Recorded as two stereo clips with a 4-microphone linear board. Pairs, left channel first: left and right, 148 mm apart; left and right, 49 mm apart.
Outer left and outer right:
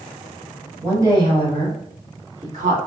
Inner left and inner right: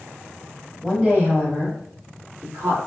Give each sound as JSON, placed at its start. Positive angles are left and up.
{"t": 0.8, "sound": "a woman speaking", "side_deg": -15, "distance_m": 1.3}